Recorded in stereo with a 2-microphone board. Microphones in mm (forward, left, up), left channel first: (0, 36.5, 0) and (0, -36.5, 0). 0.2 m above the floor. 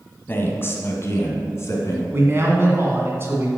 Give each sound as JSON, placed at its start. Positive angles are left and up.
{"t": 0.3, "sound": "a man speaking", "side_deg": 30, "distance_m": 1.4}
{"t": 2.1, "sound": "a man speaking", "side_deg": -35, "distance_m": 2.0}